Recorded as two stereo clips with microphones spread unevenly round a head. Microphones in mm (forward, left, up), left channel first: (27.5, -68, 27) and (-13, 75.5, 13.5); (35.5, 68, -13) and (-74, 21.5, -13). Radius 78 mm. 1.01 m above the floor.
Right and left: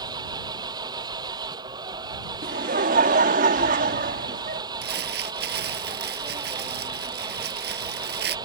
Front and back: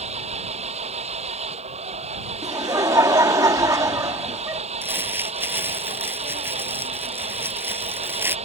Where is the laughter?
140° left.